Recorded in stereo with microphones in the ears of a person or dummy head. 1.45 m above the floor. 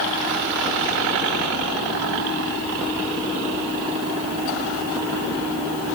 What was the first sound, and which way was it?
Only background noise.